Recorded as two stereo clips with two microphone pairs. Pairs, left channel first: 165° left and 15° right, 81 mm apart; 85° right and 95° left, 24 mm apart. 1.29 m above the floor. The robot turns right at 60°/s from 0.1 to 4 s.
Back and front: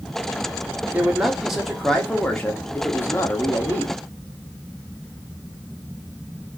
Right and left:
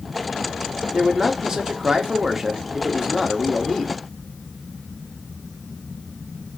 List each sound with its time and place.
0.9 s a man speaking: 35° left, 0.6 m; by 4.0 s 145° right, 0.6 m